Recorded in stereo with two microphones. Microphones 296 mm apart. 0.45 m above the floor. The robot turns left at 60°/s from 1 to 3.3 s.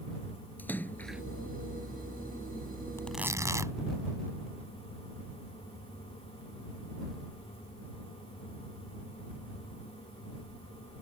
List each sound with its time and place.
0.6 s a splash: 5° left (ahead or behind); by 1.2 s 10° right (ahead or behind)
3.0 s tearing paper: 10° left (ahead or behind); by 3.8 s 10° right (ahead or behind)